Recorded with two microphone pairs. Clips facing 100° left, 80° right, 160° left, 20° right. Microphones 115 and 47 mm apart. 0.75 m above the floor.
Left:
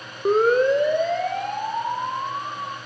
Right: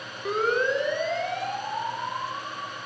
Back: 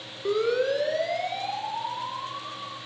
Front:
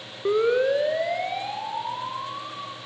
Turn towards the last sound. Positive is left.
turn(degrees=60)